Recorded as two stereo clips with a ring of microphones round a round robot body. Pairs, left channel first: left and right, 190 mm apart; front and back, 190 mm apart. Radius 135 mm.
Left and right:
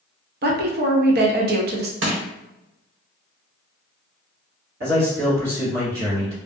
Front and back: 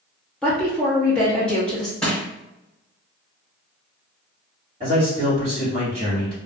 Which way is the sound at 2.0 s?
85° right.